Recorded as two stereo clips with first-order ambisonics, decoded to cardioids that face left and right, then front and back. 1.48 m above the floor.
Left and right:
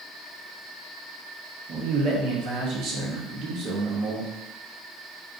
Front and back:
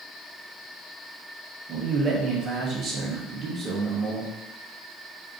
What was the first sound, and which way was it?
A man speaking, 130° right.